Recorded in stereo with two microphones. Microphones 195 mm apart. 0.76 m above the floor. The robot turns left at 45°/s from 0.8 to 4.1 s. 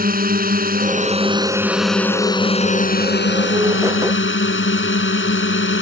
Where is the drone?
130° right; by 5.8 s 80° left.